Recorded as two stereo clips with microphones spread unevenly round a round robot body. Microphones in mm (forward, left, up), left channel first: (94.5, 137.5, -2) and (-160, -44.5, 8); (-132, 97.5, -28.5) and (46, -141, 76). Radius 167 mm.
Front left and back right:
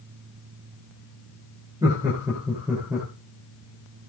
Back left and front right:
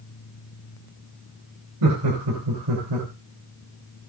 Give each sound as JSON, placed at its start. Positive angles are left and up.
{"t": 1.8, "sound": "laughter", "azimuth_deg": -65, "distance_m": 4.5}